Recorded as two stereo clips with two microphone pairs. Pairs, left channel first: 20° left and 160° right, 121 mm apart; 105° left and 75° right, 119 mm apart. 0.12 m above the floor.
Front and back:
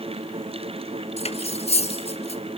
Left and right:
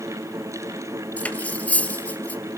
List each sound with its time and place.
1.2 s cutlery clinking: 30° left, 1.4 m